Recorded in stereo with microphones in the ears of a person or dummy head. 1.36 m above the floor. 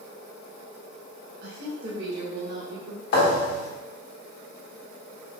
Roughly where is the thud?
Left.